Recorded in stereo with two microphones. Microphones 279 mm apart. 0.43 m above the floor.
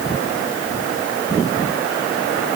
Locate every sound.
Only background noise.